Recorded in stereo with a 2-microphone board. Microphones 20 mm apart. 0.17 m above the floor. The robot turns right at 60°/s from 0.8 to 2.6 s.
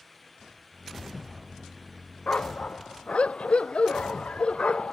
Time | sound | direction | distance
2.3 | a dog barking | 85° left | ?